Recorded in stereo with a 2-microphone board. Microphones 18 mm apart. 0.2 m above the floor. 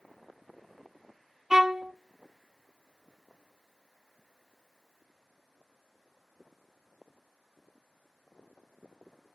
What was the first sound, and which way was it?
A violin, 25° right (ahead or behind).